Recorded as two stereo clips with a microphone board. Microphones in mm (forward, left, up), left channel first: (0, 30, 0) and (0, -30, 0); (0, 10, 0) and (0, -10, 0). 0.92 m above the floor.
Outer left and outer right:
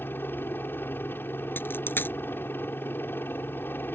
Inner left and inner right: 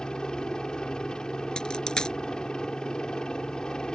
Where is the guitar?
No guitar in this recording.